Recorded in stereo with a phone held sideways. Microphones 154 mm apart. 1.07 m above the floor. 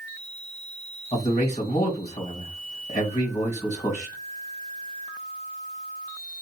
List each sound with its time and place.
1.1 s a man speaking: 50° left (ahead or behind), 1.7 m